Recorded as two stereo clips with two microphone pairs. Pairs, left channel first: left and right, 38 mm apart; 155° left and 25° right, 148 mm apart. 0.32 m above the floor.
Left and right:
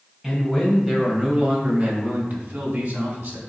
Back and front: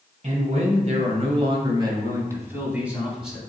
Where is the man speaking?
5° right, 2 m; by 3.4 s 110° right, 3 m.